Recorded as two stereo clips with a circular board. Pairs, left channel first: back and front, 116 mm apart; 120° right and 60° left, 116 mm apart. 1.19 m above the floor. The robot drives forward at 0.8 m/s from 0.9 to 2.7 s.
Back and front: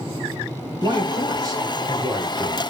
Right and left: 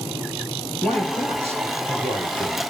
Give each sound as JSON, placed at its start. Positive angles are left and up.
{"t": 0.8, "sound": "a man speaking", "azimuth_deg": 50, "distance_m": 6.5}